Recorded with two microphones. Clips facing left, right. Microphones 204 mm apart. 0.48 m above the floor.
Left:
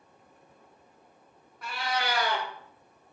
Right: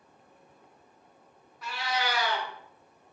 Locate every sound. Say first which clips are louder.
1.6 s a cat meowing: even; 55° left (ahead or behind), 0.7 m